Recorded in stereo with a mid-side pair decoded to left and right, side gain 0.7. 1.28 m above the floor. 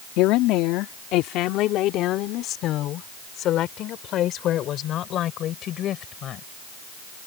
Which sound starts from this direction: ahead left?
A woman speaking, at 0.2 s.